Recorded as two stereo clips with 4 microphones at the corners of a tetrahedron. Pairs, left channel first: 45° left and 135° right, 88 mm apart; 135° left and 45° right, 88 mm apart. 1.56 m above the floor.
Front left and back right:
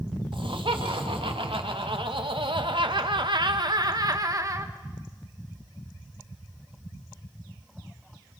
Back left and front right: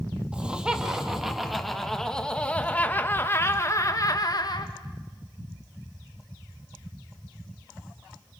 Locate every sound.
0.3 s laughter: 125° right, 3 m; by 4.7 s 170° left, 2 m